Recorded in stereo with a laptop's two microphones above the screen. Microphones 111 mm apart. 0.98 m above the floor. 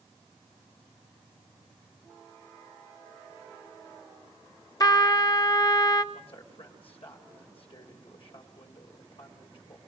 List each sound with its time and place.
4.8 s a trumpet: 35° left (ahead or behind), 0.8 m
6.1 s a man speaking: 60° left (ahead or behind), 3.5 m